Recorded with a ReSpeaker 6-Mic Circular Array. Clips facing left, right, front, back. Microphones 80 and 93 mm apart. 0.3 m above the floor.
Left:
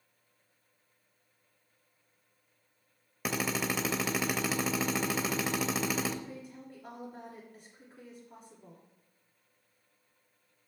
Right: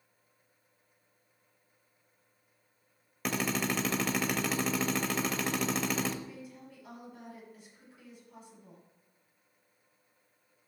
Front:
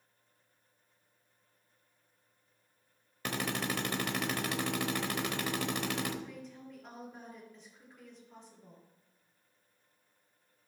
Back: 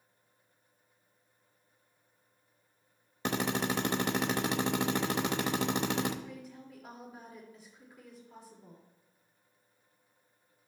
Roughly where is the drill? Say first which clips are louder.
Right 1 dB, back 4 dB; behind.